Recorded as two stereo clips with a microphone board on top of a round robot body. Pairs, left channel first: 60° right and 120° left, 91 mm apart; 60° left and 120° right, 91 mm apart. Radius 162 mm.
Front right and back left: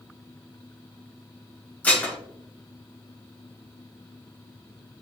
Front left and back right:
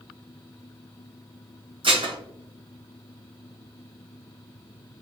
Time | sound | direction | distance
1.8 | dishes clattering | 135° right | 1.7 m